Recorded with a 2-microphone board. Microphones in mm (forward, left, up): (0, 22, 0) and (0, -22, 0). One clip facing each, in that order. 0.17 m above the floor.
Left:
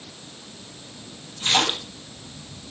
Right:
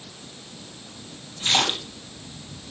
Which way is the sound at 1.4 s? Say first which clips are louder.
Left 1 dB; centre (ahead or behind).